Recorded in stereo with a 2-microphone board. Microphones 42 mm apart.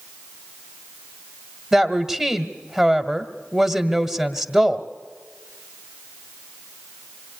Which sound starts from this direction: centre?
A woman speaking, at 1.7 s.